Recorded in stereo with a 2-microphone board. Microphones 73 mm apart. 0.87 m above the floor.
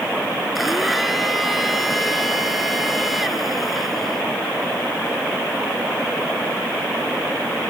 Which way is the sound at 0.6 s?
Centre (ahead or behind).